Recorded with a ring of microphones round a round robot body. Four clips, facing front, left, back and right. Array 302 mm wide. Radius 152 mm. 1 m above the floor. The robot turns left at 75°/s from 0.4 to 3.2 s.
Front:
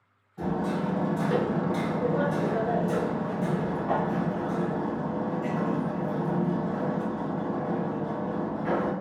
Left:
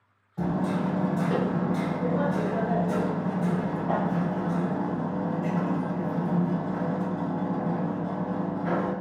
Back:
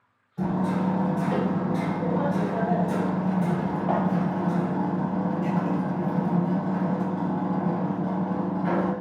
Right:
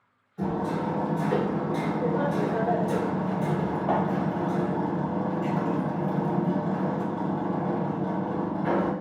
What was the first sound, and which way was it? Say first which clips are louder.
Hammering: left 1 dB, back 3 dB; 100° left.